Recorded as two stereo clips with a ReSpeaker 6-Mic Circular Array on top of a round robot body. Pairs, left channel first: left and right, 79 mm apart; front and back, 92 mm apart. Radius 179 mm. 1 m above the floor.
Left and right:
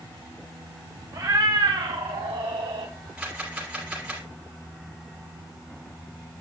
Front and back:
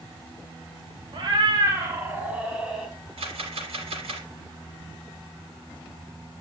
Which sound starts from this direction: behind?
A camera shutter, at 3.2 s.